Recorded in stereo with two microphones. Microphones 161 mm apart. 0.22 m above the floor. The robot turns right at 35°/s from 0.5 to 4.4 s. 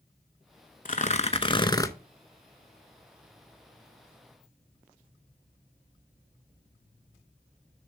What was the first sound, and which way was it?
Tearing paper, 125° left.